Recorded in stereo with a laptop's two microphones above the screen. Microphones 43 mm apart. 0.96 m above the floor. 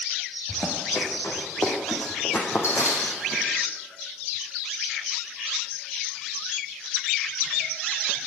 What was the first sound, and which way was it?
Running footsteps, 65° left (ahead or behind).